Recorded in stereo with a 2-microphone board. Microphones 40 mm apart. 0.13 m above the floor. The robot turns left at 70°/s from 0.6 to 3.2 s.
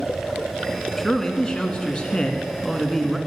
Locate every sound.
1.0 s a man speaking: 5° left (ahead or behind), 1.1 m